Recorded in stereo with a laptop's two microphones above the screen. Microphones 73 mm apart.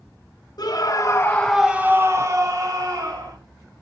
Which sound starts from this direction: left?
A scream, at 0.6 s.